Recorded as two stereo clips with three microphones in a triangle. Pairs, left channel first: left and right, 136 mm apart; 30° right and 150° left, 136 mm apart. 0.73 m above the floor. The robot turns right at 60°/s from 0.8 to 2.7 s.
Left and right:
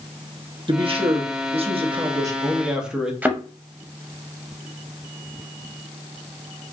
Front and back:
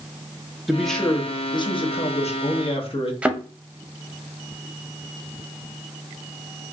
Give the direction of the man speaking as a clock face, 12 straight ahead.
4 o'clock.